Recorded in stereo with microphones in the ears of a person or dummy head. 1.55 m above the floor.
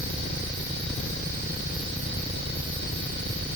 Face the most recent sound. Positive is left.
No sound to turn to.